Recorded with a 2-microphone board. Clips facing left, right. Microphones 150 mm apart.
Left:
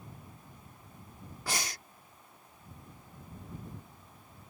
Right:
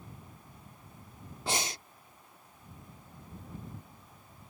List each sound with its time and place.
1.5 s breathing: 25° right (ahead or behind)